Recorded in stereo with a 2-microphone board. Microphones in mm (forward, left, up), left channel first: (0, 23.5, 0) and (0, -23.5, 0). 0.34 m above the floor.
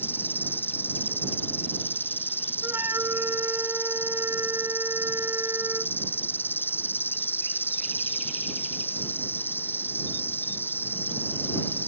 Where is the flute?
75° right (ahead or behind).